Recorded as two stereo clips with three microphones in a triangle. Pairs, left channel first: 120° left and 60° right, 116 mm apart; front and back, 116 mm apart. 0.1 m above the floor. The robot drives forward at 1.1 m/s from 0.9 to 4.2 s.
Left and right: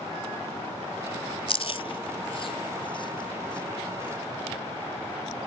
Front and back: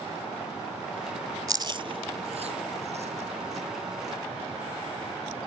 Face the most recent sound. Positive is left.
turn(degrees=170)